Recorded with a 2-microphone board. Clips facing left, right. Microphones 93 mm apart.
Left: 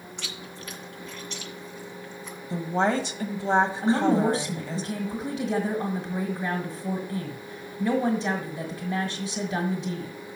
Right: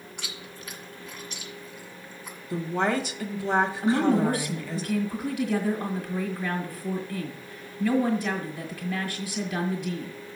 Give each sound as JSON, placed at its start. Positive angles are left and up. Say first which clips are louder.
{"t": 0.2, "sound": "chewing", "louder": "left 2 dB", "side_deg": -10, "distance_m": 1.9}
{"t": 2.5, "sound": "a woman speaking", "louder": "left 2 dB", "side_deg": 30, "distance_m": 1.2}
{"t": 3.8, "sound": "a woman speaking", "louder": "left 1 dB", "side_deg": 25, "distance_m": 1.6}